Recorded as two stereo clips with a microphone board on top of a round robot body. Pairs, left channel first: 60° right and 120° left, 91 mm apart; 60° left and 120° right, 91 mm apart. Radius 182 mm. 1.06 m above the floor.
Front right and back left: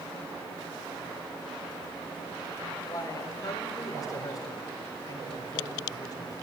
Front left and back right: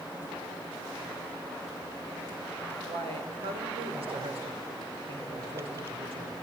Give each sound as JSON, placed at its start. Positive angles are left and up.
{"t": 2.9, "sound": "a man speaking", "azimuth_deg": -110, "distance_m": 4.5}